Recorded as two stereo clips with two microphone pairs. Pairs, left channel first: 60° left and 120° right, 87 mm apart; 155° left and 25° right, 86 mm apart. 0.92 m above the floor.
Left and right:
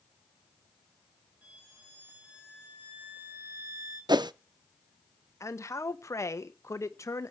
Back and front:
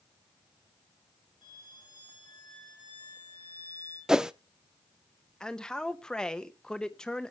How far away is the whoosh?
About 0.6 m.